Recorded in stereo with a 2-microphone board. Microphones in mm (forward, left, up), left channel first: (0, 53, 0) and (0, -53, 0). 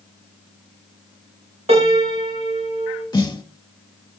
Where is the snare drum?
40° left (ahead or behind), 1.0 m.